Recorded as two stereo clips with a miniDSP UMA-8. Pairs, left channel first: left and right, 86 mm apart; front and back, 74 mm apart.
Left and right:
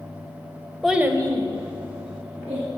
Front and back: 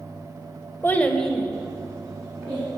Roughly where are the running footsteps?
No running footsteps in this recording.